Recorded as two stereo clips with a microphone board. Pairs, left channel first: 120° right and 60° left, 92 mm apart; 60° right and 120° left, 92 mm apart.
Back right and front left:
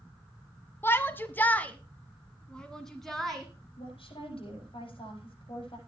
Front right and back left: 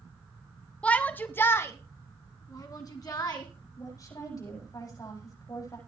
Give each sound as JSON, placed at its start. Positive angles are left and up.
{"t": 0.8, "sound": "a shout", "azimuth_deg": -115, "distance_m": 1.1}
{"t": 3.8, "sound": "a woman speaking", "azimuth_deg": -110, "distance_m": 9.5}